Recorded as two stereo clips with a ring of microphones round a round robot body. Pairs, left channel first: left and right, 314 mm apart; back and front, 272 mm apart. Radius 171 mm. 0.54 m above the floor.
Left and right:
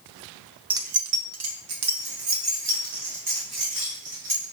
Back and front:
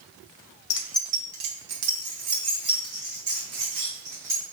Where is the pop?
I don't hear a pop.